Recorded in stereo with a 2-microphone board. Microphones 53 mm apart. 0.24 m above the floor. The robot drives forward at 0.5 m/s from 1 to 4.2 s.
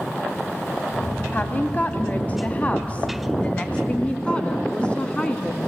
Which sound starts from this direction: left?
A woman speaking, at 1.3 s.